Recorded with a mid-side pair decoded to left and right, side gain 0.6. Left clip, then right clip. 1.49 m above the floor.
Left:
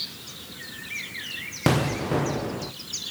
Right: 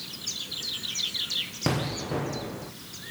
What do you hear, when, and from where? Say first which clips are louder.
1.7 s an explosion: left 5 dB; 30° left, 1.0 m